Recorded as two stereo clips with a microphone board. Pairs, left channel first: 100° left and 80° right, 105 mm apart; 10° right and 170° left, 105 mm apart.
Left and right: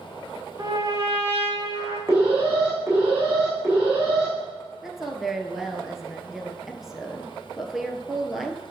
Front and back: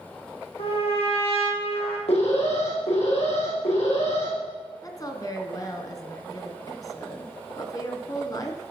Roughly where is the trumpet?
Ahead right.